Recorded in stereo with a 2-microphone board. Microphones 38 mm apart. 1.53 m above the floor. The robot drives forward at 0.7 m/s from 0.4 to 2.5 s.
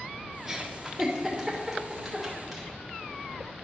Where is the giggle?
15° right (ahead or behind), 1.2 m; by 2.7 s 5° right (ahead or behind), 2.5 m.